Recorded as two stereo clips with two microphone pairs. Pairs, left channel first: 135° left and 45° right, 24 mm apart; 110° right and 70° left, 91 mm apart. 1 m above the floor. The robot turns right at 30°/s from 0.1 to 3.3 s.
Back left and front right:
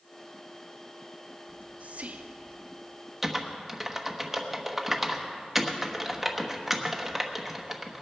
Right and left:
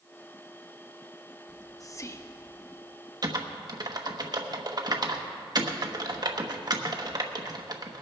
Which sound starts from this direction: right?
Whispering, at 1.5 s.